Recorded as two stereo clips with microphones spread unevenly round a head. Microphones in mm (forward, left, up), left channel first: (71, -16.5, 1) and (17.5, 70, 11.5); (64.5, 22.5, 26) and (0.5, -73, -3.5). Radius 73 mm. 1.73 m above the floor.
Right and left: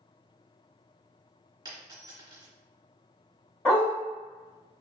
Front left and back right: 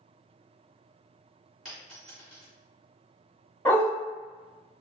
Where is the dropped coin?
130° left, 1.5 m.